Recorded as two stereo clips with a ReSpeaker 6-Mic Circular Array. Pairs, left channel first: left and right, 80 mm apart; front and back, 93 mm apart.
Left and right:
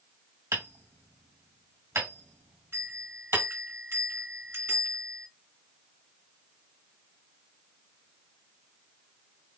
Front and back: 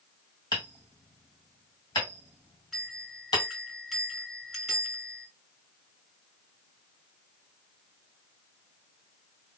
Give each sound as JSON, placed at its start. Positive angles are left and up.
{"t": 0.5, "sound": "hammering", "azimuth_deg": -35, "distance_m": 1.5}
{"t": 2.7, "sound": "a bell", "azimuth_deg": -90, "distance_m": 1.9}